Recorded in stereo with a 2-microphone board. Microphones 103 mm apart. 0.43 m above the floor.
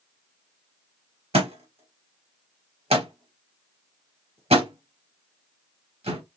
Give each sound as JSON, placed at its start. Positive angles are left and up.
{"t": 1.3, "sound": "a thud", "side_deg": -80, "distance_m": 3.0}